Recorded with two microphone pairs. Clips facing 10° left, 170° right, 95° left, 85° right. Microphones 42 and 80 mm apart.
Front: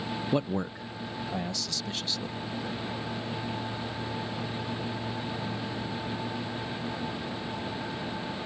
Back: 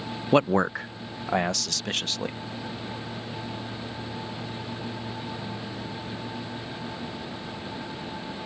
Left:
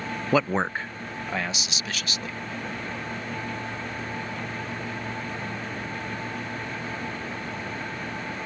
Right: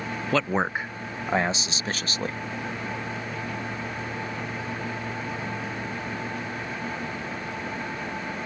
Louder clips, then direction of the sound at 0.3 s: Back 10 dB, left 1 dB; 170° left.